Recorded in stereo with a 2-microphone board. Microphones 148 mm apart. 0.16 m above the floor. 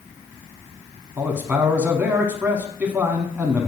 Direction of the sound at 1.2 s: 15° right (ahead or behind).